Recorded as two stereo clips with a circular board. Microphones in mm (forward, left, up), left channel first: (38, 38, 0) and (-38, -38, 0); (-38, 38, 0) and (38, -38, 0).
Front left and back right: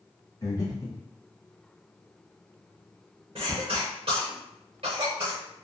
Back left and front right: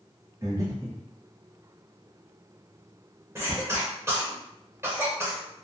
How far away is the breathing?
About 0.7 m.